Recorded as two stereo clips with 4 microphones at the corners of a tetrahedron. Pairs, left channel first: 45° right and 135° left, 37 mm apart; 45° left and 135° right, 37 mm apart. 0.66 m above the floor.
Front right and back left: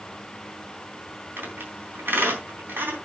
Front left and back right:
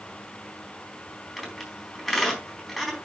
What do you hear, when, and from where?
1.4 s a squeak: 140° left, 4 m